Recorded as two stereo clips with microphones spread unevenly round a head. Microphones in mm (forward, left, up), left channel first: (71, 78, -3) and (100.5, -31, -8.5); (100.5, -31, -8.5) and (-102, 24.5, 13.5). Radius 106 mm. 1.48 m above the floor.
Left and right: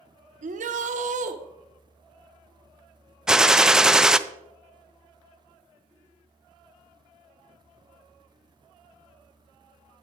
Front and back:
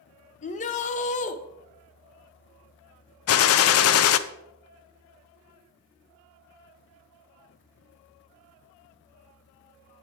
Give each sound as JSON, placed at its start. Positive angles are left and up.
{"t": 0.4, "sound": "a shout", "azimuth_deg": -75, "distance_m": 1.0}
{"t": 3.3, "sound": "a gunshot", "azimuth_deg": 10, "distance_m": 0.5}